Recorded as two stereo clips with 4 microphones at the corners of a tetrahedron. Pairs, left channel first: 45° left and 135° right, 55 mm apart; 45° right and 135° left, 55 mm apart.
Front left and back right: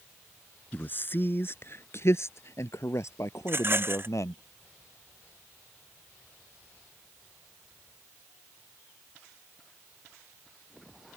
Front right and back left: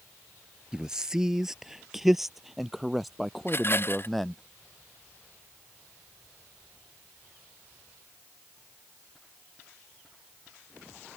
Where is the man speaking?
70° left; by 4.4 s 40° left.